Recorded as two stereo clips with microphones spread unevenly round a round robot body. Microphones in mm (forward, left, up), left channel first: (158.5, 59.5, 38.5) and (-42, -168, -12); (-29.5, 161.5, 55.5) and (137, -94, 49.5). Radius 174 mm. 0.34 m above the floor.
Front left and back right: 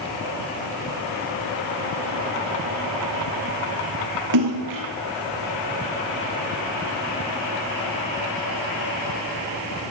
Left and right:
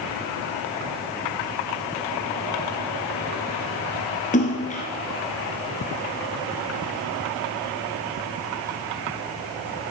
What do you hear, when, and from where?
4.3 s a splash: 170° right, 1.7 m